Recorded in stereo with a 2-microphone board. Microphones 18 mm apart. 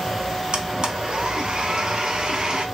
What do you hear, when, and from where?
0.5 s a blender: 45° right (ahead or behind), 0.7 m